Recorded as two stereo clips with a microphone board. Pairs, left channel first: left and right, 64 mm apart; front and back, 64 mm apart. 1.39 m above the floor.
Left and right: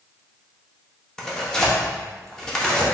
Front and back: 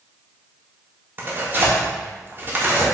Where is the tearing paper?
165° left, 0.8 m.